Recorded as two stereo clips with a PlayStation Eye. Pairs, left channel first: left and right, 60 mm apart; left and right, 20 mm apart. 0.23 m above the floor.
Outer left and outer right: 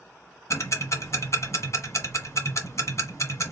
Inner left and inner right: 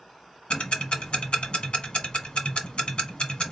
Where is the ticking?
55° left (ahead or behind), 0.8 m.